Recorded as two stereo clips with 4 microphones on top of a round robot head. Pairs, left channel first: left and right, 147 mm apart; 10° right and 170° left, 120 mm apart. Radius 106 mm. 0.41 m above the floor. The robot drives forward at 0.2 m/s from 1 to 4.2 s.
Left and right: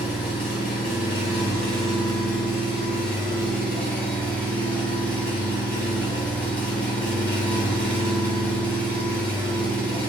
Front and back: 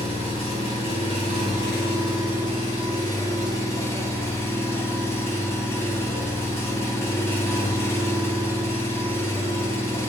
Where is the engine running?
10° left, 1.4 m; by 10.1 s 20° left, 1.1 m.